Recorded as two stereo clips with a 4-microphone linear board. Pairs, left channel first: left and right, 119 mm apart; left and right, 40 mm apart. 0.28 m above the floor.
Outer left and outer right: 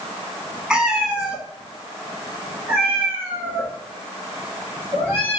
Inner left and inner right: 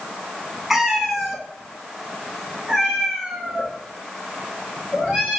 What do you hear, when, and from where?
0.7 s a cat meowing: 10° right (ahead or behind), 1.4 m; by 5.4 s 15° right (ahead or behind), 4 m